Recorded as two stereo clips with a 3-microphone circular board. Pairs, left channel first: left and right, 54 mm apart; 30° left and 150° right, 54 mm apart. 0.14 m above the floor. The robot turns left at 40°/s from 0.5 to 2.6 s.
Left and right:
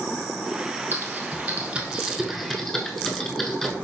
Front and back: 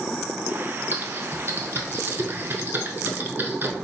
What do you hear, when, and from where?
0.9 s typing on a keyboard: 115° right, 0.7 m; by 3.8 s 175° left, 0.7 m